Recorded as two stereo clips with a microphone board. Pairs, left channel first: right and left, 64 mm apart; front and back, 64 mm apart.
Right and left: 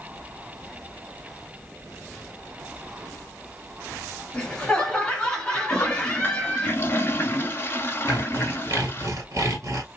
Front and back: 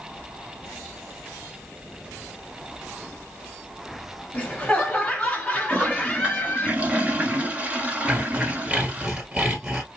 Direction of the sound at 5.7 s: 125° right.